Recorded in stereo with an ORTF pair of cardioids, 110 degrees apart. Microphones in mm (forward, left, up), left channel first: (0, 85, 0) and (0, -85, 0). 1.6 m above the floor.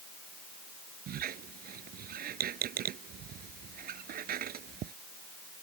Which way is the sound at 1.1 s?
60° right.